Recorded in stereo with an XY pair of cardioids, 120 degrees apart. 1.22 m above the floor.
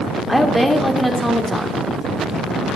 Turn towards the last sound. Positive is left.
turn(degrees=0)